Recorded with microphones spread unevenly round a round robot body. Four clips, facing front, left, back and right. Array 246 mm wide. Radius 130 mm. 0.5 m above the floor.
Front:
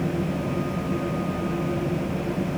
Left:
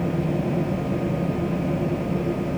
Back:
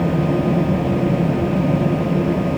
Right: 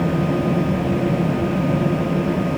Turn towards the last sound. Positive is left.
No sound to turn to.